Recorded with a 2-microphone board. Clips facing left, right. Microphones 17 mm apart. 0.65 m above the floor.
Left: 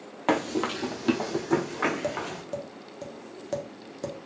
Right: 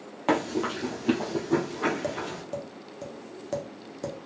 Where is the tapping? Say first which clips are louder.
Left 1 dB; 5° left (ahead or behind), 0.7 m.